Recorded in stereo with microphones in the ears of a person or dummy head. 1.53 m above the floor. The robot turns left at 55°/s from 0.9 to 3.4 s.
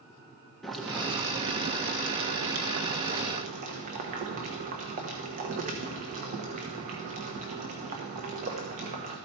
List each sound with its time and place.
0.6 s boiling: 5° left, 1.1 m; by 9.2 s 135° right, 1.1 m